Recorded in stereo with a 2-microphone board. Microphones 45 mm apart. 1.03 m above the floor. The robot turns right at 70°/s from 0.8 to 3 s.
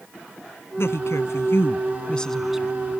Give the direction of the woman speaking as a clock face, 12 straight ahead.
10 o'clock.